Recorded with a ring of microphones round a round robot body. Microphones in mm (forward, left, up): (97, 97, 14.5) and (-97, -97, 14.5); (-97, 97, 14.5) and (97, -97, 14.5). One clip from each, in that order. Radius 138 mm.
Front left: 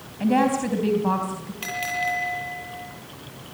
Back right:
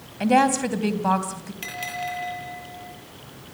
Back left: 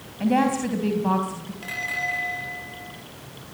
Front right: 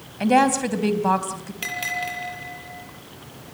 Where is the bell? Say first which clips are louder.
Front left 4 dB, even; 50° right, 8 m.